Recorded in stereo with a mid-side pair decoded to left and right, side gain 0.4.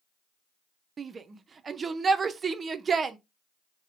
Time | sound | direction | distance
1.0 | a shout | 45° right | 0.5 m